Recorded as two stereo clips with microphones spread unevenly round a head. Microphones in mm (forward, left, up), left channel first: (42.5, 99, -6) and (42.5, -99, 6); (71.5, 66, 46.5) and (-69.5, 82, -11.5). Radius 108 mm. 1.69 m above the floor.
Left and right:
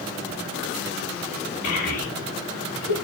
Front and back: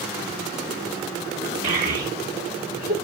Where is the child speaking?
135° left, 2 m; by 2.9 s 165° left, 2 m.